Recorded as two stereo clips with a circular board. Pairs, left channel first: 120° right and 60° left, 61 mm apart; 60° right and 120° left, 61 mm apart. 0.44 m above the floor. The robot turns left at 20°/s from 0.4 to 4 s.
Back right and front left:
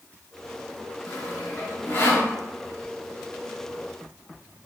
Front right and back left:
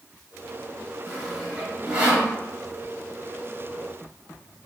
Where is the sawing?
150° right, 0.9 m; by 2.3 s 175° right, 0.9 m.